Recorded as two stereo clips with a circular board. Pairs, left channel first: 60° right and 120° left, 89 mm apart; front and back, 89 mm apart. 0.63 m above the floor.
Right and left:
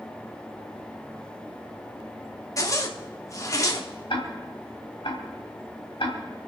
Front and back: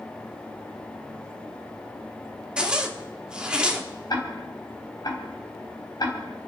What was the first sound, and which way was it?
A zipper, 100° right.